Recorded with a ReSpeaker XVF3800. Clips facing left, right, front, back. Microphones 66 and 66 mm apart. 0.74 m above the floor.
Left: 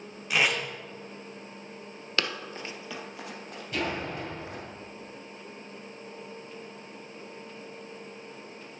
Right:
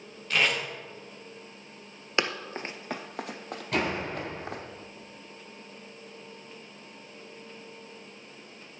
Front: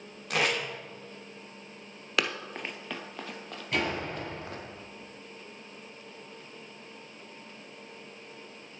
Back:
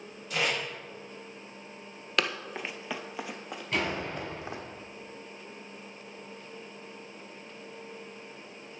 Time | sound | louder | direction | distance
0.3 | tape being pulled | even, front 2 dB | 10° left | 2.5 m
2.2 | running footsteps | right 3 dB, even | 80° right | 0.7 m
3.7 | a door slam | right 2 dB, front 1 dB | 90° right | 5 m